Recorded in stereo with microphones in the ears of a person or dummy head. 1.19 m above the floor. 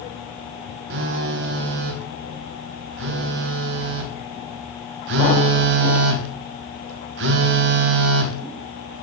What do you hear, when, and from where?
0.9 s a phone buzzing: 60° right (ahead or behind), 1.2 m